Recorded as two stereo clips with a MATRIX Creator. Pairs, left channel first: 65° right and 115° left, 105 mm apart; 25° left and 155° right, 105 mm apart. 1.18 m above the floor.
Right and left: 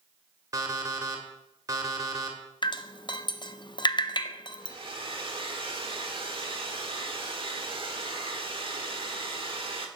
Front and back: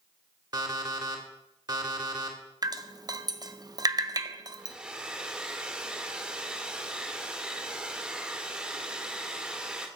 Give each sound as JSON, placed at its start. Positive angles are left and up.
{"t": 0.5, "sound": "an alarm clock", "azimuth_deg": 160, "distance_m": 1.7}
{"t": 2.6, "sound": "dripping", "azimuth_deg": -110, "distance_m": 0.6}
{"t": 4.6, "sound": "a hair dryer", "azimuth_deg": 125, "distance_m": 1.3}